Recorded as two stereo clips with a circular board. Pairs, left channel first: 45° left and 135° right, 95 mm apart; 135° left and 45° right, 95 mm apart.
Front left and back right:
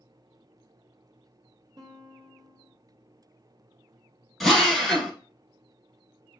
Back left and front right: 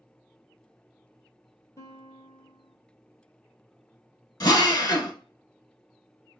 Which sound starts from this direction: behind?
A guitar, at 1.8 s.